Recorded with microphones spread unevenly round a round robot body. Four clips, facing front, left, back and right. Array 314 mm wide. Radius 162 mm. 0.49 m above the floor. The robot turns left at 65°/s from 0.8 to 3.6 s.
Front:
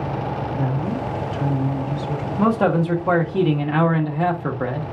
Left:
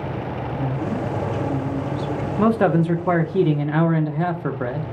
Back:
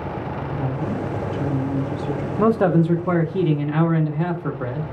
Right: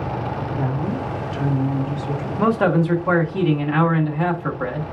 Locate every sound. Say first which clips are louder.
0.6 s a woman speaking: left 1 dB, back 1 dB; 65° right, 1.3 m; by 2.3 s 160° right, 1.3 m
2.4 s a man speaking: even, back 1 dB; 150° left, 0.7 m; by 4.9 s 70° left, 0.7 m